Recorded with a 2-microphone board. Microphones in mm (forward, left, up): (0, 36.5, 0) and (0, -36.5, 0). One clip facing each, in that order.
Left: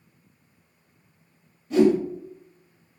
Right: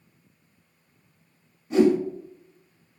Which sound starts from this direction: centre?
A whoosh, at 1.7 s.